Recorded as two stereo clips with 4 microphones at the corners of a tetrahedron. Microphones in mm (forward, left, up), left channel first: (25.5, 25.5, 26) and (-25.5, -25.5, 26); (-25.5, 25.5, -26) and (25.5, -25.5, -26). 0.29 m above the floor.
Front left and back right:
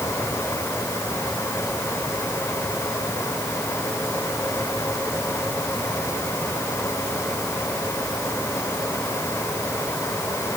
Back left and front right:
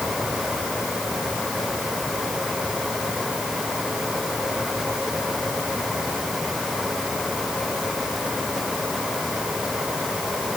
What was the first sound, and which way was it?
Only background noise.